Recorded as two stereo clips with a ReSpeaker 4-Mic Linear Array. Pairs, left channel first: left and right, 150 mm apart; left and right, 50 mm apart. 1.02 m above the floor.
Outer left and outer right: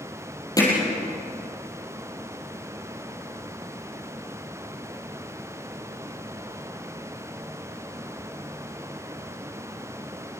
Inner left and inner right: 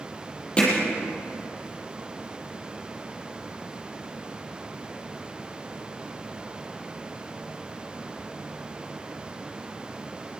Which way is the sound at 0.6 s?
25° left (ahead or behind).